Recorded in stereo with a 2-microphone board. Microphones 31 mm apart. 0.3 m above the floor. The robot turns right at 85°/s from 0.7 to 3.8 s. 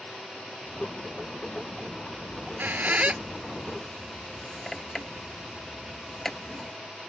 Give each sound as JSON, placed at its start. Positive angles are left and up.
{"t": 2.3, "sound": "a squeak", "side_deg": -65}